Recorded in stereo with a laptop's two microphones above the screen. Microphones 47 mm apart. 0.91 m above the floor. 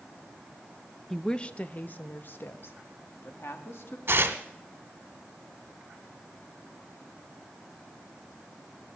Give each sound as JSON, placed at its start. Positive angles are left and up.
{"t": 1.1, "sound": "a woman speaking", "side_deg": 10, "distance_m": 0.6}
{"t": 4.1, "sound": "tearing paper", "side_deg": -55, "distance_m": 1.3}